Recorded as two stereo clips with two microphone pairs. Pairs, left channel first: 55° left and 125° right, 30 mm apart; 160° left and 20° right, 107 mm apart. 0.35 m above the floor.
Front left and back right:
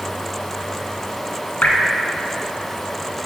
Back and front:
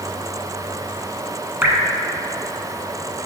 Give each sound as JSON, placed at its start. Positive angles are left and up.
{"t": 1.6, "sound": "dripping", "azimuth_deg": 55, "distance_m": 0.8}